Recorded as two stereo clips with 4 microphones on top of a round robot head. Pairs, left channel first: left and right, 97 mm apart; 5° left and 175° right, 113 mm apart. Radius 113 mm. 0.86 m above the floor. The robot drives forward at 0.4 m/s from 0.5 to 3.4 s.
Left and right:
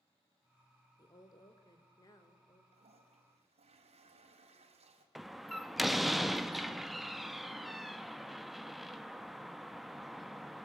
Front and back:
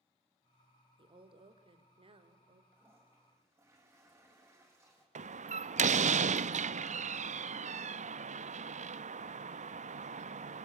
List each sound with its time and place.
1.0 s a woman speaking: 145° left, 2.5 m; by 2.6 s 150° left, 3 m
2.7 s a toilet flushing: 100° right, 4 m; by 5.0 s 105° right, 4 m
5.2 s a door slam: straight behind, 0.8 m